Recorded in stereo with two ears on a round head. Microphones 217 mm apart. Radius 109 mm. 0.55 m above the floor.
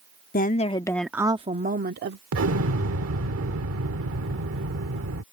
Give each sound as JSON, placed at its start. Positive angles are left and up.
{"t": 0.3, "sound": "a woman speaking", "side_deg": 35}
{"t": 2.3, "sound": "an explosion", "side_deg": -55}